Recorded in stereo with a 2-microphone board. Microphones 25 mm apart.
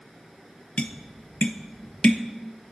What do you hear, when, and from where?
0.8 s tapping: 55° left (ahead or behind), 0.5 m